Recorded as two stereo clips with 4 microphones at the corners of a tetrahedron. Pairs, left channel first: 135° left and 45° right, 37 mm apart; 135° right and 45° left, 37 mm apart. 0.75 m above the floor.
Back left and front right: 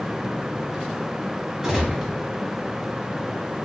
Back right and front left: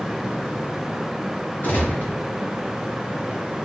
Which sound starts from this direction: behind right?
A gunshot, at 1.6 s.